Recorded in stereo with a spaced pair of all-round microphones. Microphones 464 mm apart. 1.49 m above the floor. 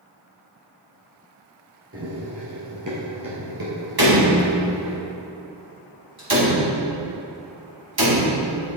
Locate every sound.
1.9 s running footsteps: 30° right (ahead or behind), 2.0 m; by 5.0 s 60° right (ahead or behind), 3 m
4.0 s a door slam: 50° right (ahead or behind), 2.5 m